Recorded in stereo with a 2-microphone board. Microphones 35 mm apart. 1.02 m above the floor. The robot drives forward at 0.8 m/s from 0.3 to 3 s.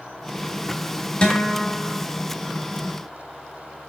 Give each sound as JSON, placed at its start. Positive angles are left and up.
{"t": 1.2, "sound": "a guitar", "side_deg": 30, "distance_m": 3.5}